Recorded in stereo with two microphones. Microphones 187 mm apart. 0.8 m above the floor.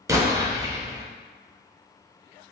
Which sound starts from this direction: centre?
An explosion, at 0.1 s.